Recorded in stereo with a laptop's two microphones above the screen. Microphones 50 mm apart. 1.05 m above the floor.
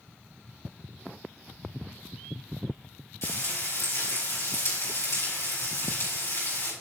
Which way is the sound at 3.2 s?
70° left (ahead or behind).